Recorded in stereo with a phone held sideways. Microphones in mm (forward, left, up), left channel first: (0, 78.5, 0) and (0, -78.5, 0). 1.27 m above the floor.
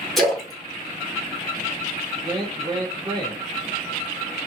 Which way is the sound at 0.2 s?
Centre (ahead or behind).